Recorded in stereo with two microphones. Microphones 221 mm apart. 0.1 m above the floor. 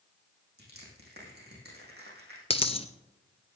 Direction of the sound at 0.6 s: 50° right (ahead or behind).